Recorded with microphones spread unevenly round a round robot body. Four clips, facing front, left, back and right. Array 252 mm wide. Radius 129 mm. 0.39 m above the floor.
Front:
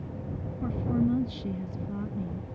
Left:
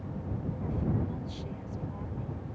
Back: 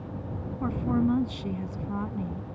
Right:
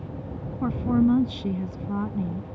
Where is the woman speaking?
95° right.